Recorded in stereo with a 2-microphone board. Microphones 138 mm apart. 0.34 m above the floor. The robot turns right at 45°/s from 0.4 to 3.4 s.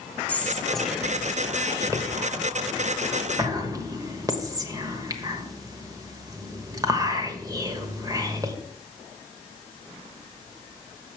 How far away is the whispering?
About 1.1 m.